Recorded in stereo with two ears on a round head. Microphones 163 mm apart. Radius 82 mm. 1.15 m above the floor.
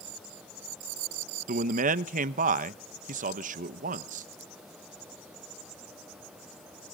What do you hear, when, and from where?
1.5 s a man speaking: 45° right (ahead or behind), 0.8 m